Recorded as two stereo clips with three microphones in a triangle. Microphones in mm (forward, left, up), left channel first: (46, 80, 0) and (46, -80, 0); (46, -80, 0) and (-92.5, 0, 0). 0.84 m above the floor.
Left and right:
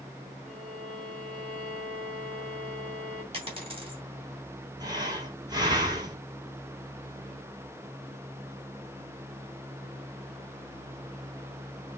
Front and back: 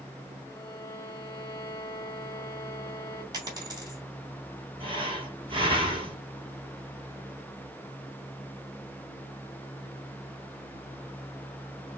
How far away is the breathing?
About 1.7 m.